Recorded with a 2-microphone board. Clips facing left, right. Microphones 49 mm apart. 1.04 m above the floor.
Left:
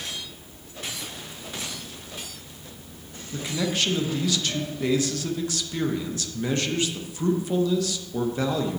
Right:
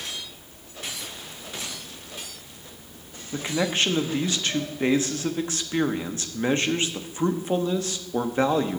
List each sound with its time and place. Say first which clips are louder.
3.3 s a man speaking: right 2 dB; 30° right (ahead or behind), 0.7 m